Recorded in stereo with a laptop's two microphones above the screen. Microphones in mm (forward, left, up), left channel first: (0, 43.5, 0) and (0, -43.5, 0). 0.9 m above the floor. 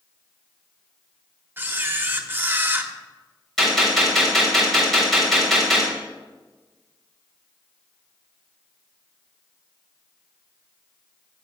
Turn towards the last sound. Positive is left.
turn(degrees=0)  # may be behind; listen again after turning